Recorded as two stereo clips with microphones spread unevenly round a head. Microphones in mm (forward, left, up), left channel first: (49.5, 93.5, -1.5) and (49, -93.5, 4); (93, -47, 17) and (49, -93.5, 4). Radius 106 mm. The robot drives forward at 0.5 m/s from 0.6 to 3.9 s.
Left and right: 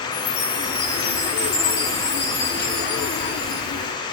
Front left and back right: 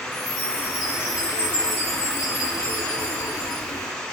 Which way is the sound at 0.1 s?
95° left.